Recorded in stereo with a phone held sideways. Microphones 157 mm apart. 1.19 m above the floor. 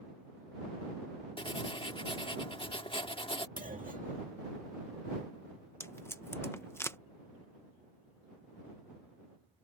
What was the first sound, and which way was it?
Writing, 35° left (ahead or behind).